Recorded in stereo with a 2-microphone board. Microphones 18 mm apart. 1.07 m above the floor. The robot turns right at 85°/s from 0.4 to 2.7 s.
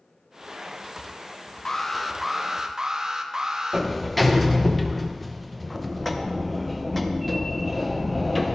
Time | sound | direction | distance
1.6 | an alarm | 130° left | 0.6 m
3.7 | a sliding door | 5° left (ahead or behind) | 0.6 m